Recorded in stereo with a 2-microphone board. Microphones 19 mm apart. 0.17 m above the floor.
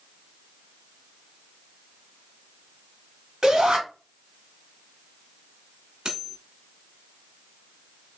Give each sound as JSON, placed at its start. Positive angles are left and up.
{"t": 3.4, "sound": "a shout", "side_deg": -25, "distance_m": 1.8}
{"t": 6.0, "sound": "cutlery clinking", "side_deg": -40, "distance_m": 1.0}